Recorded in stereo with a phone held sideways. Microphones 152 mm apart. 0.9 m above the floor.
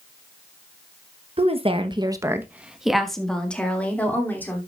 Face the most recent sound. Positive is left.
turn(degrees=15)  # may be behind; listen again after turning